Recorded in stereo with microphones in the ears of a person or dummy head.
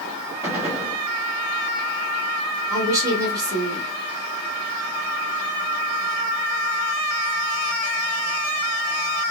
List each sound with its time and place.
0.4 s a gunshot: 10° right (ahead or behind), 0.9 m
2.7 s a woman speaking: 15° right (ahead or behind), 1.5 m